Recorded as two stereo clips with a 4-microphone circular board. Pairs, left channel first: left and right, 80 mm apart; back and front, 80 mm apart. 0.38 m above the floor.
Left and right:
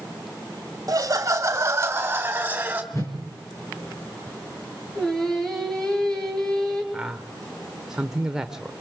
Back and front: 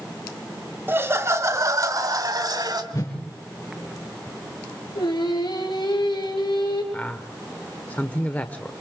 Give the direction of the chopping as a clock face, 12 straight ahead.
No chopping in this recording.